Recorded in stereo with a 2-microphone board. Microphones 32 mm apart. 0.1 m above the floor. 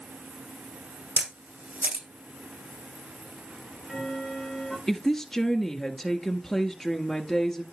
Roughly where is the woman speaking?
Centre.